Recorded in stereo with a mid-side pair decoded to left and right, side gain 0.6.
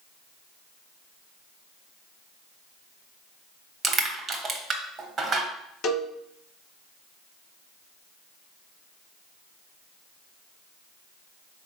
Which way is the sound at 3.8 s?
40° right.